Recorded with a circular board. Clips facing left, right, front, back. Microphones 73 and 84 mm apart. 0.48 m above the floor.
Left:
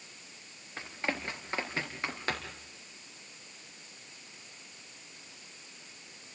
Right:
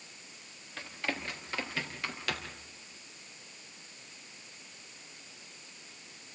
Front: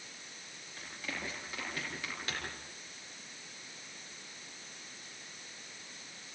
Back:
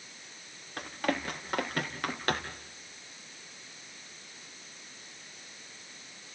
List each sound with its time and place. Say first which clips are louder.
0.8 s running footsteps: left 2 dB, back 11 dB; 155° left, 5 m; by 2.6 s 145° left, 4 m